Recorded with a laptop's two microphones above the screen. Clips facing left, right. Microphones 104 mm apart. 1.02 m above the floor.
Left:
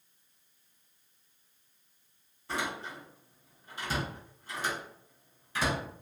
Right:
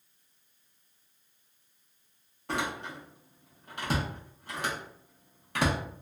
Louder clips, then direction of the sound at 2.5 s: Right 2 dB; 60° right (ahead or behind).